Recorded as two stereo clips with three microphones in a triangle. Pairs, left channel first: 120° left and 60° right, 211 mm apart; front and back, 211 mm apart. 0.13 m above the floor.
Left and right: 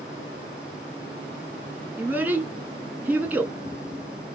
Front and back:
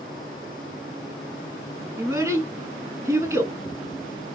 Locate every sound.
2.0 s a child speaking: 125° right, 0.6 m